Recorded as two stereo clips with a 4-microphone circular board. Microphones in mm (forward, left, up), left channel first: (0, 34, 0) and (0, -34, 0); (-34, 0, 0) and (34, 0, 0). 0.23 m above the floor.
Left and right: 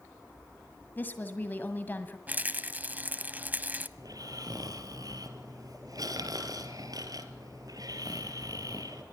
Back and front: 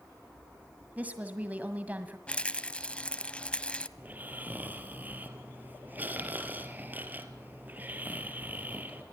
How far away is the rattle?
About 1.0 m.